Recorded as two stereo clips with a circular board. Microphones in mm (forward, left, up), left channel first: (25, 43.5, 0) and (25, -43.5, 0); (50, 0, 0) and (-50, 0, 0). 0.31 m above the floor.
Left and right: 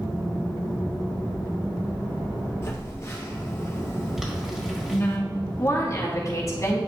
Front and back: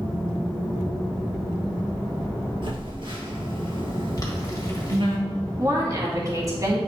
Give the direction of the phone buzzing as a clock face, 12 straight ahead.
7 o'clock.